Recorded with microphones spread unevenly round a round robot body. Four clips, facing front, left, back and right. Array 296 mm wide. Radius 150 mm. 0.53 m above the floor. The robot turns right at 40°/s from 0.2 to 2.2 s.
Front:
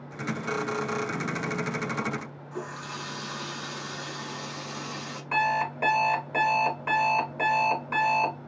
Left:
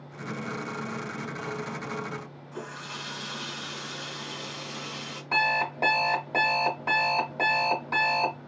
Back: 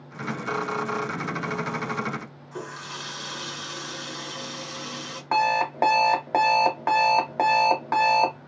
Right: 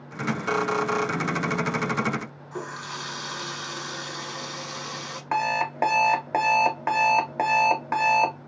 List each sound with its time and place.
2.5 s a running tap: 115° right, 1.2 m
5.3 s an alarm clock: 155° right, 1.1 m